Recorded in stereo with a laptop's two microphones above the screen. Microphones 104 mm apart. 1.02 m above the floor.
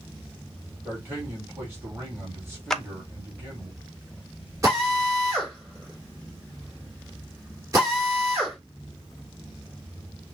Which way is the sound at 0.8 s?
25° right (ahead or behind).